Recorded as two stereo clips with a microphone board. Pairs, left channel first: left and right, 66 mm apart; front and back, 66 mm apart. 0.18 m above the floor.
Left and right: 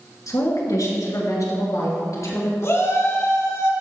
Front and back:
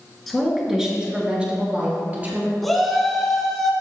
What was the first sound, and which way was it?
A woman speaking, 90° left.